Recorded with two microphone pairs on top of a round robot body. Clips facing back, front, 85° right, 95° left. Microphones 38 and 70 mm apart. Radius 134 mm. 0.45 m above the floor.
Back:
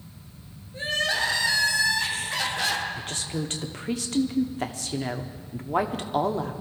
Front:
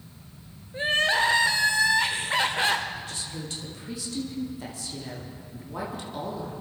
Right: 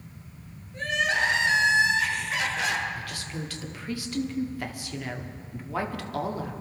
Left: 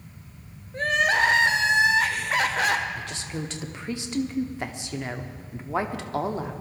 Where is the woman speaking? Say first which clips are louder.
Back 5 dB, left 2 dB; 160° left, 1.3 m.